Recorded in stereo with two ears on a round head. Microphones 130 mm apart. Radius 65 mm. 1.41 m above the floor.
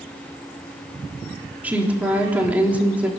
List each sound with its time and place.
1.6 s a woman speaking: 10° right (ahead or behind), 3.5 m